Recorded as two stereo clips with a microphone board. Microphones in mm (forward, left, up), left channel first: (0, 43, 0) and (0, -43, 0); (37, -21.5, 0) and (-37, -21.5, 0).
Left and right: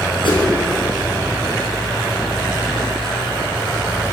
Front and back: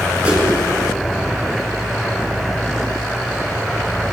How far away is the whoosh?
About 4.5 m.